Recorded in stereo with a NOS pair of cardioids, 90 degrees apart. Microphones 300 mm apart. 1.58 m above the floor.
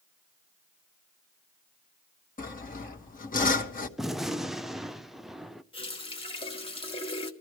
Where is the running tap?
20° left, 1.8 m.